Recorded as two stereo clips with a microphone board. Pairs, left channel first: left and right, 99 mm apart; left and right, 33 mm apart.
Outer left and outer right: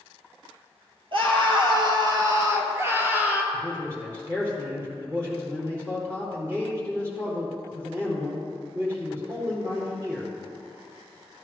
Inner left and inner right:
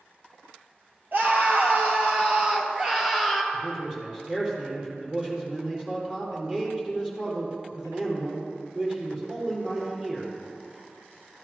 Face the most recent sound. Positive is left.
turn(degrees=-25)  # may be behind; listen again after turning